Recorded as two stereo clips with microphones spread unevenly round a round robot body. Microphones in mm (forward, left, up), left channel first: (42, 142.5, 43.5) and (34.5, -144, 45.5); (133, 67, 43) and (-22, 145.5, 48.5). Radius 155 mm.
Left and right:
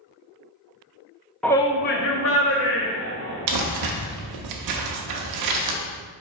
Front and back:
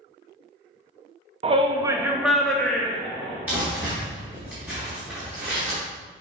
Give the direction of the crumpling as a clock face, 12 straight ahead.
4 o'clock.